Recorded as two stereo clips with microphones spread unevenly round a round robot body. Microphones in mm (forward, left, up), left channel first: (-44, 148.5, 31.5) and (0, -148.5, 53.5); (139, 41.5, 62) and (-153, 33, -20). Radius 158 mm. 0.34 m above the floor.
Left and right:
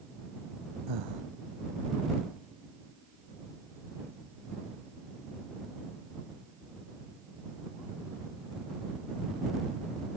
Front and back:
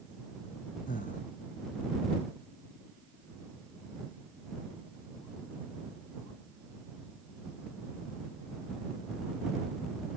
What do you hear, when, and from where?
0.9 s breathing: 65° right